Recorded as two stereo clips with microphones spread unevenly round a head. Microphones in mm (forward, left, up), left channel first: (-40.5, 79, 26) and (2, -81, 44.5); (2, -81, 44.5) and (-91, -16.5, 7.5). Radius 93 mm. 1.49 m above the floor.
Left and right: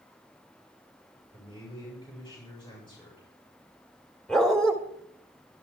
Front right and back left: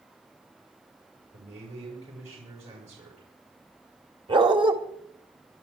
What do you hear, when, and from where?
1.3 s a man speaking: 165° left, 7 m
4.3 s a dog barking: 165° right, 1.8 m